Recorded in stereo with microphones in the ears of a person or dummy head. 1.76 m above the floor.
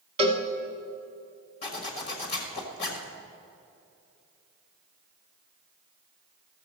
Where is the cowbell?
30° right (ahead or behind), 1.1 m.